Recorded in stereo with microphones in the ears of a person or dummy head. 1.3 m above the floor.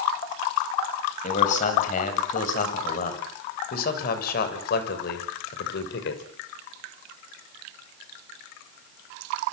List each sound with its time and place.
1.2 s a man speaking: 45° left (ahead or behind), 7.5 m; by 6.2 s 75° left (ahead or behind), 5 m